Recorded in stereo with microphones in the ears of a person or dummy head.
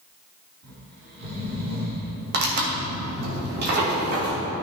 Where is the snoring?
65° right (ahead or behind), 3 m.